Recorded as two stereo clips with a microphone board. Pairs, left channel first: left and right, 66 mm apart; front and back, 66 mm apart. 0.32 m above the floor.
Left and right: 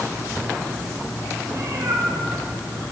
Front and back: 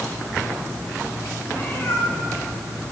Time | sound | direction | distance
1.5 | a cat meowing | 55° right | 5 m